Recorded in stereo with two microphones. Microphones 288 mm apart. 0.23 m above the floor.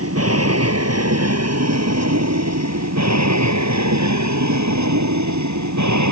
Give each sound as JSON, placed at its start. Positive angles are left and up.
{"t": 0.0, "sound": "an aircraft", "side_deg": -55}